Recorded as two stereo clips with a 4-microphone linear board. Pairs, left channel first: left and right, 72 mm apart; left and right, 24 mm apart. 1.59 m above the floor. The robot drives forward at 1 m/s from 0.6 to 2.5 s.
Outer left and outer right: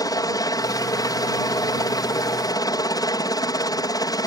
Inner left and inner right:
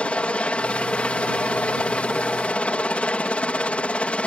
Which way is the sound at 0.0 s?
55° left (ahead or behind).